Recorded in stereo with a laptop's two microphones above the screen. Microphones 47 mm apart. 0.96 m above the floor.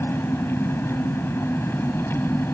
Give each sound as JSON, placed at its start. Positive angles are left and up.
{"t": 0.0, "sound": "an engine running", "side_deg": 60}